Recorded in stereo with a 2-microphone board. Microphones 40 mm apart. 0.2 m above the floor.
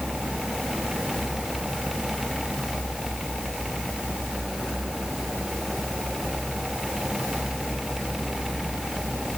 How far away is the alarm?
No alarm in this recording.